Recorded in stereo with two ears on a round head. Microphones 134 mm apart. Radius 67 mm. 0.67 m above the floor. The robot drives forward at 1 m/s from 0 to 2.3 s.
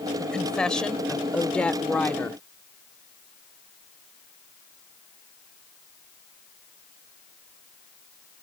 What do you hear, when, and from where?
0.2 s a woman speaking: 5° left (ahead or behind); by 2.4 s 10° left (ahead or behind)